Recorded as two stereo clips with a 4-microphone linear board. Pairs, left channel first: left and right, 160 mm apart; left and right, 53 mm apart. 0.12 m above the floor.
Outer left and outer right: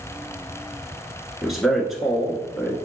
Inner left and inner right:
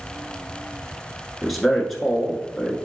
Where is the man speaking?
Centre (ahead or behind), 1.2 m.